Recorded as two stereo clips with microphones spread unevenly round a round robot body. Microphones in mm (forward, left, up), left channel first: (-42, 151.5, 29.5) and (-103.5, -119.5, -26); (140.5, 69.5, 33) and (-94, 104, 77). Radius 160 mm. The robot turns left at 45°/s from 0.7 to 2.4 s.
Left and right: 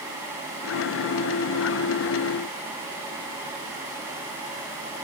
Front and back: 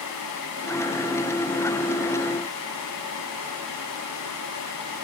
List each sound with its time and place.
Only background noise.